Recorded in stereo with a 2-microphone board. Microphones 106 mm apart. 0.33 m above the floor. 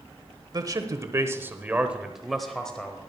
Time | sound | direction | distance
0.5 | a man speaking | 40° right (ahead or behind) | 1.1 m